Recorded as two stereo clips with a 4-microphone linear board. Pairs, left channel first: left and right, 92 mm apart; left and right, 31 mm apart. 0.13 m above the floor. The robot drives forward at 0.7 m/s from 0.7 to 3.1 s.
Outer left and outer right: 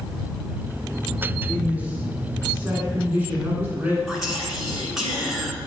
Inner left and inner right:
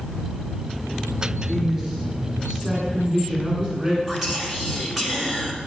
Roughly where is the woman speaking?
Centre.